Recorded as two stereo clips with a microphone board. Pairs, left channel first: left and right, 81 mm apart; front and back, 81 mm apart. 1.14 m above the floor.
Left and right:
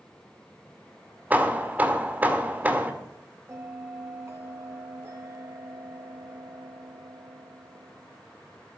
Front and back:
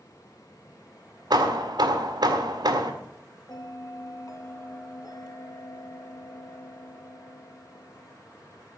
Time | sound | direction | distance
1.3 | hammering | 160° right | 1.6 m
3.5 | a bell | 40° right | 2 m